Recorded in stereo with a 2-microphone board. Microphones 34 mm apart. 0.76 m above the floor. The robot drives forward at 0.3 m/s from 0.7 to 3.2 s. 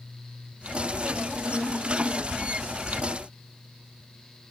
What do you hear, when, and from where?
Only background noise.